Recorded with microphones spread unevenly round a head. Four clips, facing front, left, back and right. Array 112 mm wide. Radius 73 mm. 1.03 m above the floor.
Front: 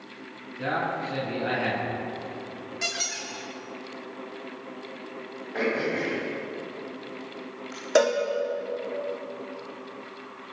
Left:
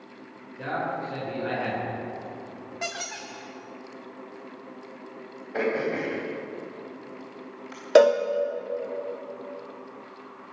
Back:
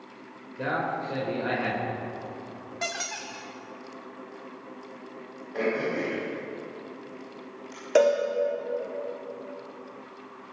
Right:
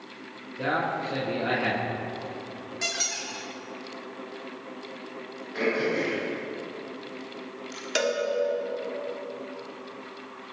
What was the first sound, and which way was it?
A man speaking, 145° right.